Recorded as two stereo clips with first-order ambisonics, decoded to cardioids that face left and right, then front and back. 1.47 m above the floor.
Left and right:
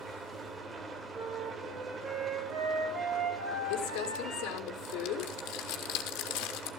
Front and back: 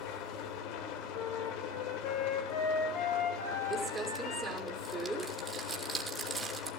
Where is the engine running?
20° right, 2.5 m.